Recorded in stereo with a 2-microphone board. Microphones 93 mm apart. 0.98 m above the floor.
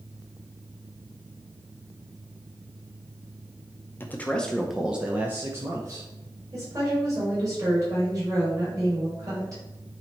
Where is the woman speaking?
35° right (ahead or behind), 3.5 m.